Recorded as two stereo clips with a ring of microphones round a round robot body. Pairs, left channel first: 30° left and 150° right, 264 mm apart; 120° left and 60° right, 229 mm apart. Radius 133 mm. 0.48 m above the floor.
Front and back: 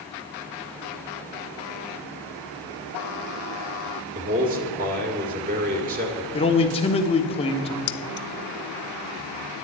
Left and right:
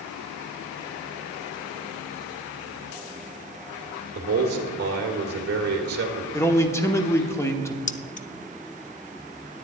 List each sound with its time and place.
4.2 s a man speaking: 100° right, 2 m
6.3 s a man speaking: 60° left, 1.1 m
7.9 s keys jangling: 65° left, 0.7 m